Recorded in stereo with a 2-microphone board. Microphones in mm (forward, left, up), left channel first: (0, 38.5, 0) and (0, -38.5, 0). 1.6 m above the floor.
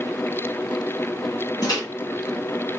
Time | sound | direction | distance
1.6 | a microwave | 55° left (ahead or behind) | 1.8 m